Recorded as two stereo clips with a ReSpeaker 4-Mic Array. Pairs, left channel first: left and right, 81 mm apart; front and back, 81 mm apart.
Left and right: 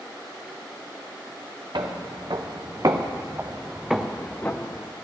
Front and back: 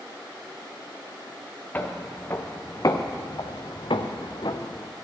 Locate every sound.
1.7 s footsteps: 70° right, 1.6 m; by 4.9 s 35° left, 1.1 m